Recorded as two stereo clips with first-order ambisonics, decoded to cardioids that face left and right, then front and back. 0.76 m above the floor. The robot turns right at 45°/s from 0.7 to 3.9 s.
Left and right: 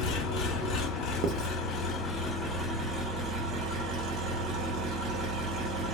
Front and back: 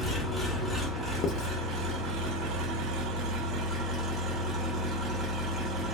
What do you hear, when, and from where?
0.0 s an engine running: 95° left, 1.0 m; by 5.9 s 120° right, 1.0 m
1.2 s writing: 50° right, 0.5 m; by 1.5 s 40° right, 0.5 m